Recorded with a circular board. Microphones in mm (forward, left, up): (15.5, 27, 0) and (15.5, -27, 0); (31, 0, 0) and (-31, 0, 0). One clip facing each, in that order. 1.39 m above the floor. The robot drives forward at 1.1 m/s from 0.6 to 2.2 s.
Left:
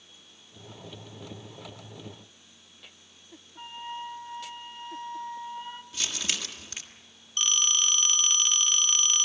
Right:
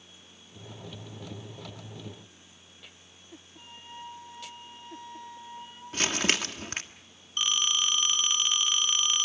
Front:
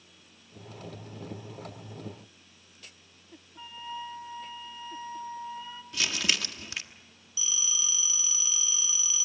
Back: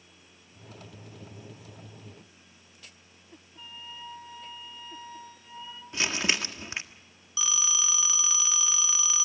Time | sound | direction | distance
3.6 | a flute | 60° left | 2 m
5.9 | crumpling | 120° right | 1.5 m
7.4 | a phone ringing | 170° right | 2.5 m